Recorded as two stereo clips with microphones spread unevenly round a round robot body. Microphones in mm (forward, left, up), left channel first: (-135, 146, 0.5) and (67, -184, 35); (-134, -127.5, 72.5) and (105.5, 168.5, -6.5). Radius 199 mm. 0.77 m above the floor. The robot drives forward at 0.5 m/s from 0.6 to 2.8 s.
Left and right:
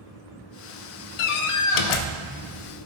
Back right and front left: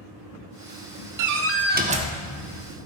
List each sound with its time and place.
1.2 s a door slam: 95° left, 0.6 m; by 2.2 s 130° left, 0.8 m